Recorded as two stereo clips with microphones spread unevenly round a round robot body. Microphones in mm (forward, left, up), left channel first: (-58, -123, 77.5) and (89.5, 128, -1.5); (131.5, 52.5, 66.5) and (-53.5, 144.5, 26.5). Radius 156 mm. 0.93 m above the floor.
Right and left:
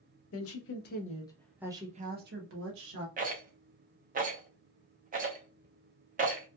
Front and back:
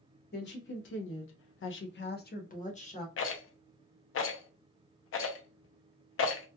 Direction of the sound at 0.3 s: 75° right.